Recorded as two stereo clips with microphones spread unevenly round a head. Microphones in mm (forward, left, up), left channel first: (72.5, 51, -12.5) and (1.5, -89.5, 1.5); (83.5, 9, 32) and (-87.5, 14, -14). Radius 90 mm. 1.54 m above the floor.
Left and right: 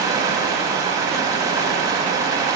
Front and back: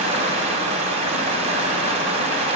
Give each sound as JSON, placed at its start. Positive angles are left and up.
{"t": 0.0, "sound": "running water", "azimuth_deg": -135, "distance_m": 1.5}